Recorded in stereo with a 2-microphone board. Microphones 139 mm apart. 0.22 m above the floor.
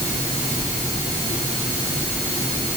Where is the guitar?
I don't hear a guitar.